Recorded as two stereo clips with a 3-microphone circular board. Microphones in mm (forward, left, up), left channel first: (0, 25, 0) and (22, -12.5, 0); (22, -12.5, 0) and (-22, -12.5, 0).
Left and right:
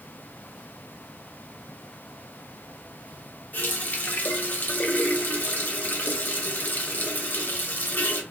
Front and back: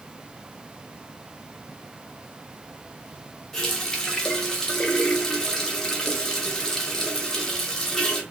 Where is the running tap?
75° left, 0.8 m.